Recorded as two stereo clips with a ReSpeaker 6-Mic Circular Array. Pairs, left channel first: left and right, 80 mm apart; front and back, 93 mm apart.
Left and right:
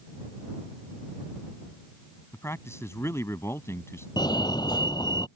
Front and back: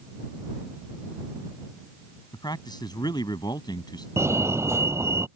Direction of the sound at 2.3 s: 40° left.